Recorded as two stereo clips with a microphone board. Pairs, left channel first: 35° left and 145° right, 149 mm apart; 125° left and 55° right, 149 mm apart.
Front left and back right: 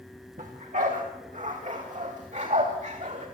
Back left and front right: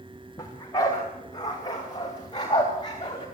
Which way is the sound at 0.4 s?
170° right.